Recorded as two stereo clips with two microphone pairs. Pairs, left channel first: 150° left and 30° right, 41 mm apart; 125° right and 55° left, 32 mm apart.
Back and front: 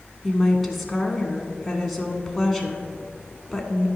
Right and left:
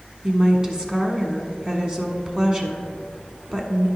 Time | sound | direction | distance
0.2 | a woman speaking | 60° left | 1.1 m